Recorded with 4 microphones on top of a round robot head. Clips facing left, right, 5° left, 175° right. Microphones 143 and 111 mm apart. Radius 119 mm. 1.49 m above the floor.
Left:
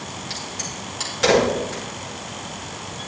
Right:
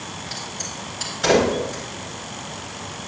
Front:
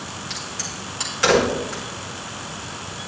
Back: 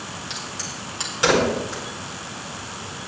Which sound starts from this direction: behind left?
A crack, at 0.3 s.